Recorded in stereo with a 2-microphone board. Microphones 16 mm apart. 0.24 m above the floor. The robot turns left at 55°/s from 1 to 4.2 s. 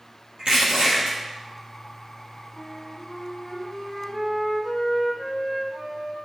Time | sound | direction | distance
0.4 | crushing | 75° right (ahead or behind) | 3.5 m
2.5 | a flute | 145° left | 4 m